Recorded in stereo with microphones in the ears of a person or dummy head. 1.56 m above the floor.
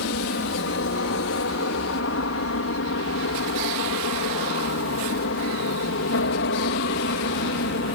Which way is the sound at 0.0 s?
60° left (ahead or behind).